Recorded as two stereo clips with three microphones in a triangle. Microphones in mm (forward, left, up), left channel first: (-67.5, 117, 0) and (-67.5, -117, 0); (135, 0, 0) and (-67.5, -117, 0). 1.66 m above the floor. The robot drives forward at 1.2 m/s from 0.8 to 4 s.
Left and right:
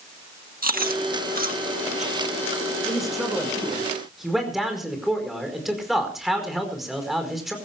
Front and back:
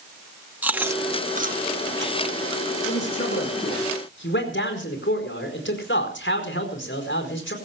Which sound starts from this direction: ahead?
A man speaking, at 2.9 s.